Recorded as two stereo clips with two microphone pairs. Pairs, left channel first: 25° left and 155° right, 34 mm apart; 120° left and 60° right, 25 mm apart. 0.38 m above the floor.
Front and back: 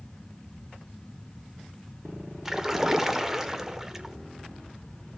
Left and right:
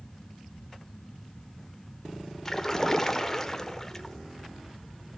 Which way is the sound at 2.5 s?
160° left.